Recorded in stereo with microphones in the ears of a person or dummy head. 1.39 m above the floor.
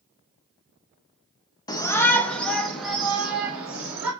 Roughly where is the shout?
Centre.